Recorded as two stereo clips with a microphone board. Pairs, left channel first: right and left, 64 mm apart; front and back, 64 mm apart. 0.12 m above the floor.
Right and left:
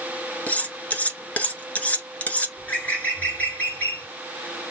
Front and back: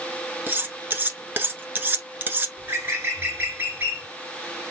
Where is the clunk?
No clunk in this recording.